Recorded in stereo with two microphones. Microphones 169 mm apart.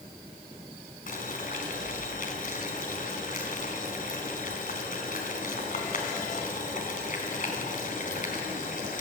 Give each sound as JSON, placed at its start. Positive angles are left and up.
{"t": 1.1, "sound": "boiling", "side_deg": 55, "distance_m": 3.5}